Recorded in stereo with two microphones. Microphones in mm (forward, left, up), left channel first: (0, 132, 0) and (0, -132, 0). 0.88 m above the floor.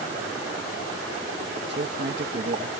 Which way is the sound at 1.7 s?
40° right (ahead or behind).